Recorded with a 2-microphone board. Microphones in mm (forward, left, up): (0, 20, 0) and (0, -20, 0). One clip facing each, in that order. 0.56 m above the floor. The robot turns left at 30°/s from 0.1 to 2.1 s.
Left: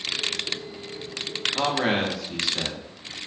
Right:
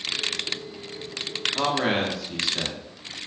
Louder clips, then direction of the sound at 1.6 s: Even; 5° left (ahead or behind).